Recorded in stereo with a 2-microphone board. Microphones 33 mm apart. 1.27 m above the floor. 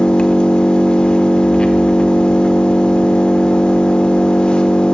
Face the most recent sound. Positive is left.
turn(degrees=30)  # may be behind; listen again after turning